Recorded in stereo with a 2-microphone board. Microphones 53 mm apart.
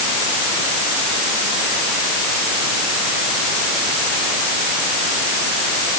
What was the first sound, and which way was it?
Only background noise.